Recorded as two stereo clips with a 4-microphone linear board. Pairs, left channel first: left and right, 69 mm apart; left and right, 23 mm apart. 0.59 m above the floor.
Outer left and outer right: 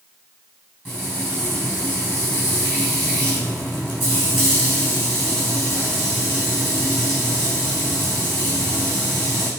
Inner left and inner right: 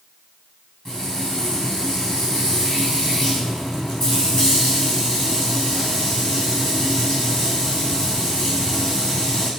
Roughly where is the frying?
Left.